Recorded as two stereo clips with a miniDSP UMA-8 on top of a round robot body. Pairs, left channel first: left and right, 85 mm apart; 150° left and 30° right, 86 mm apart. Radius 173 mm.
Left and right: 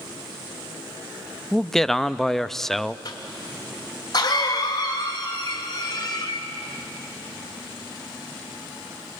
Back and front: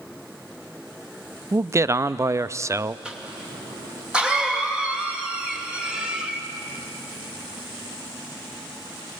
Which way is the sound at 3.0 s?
50° left.